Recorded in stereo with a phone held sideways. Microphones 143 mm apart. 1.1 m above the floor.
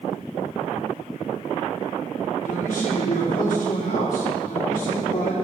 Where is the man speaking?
75° left (ahead or behind), 3 m.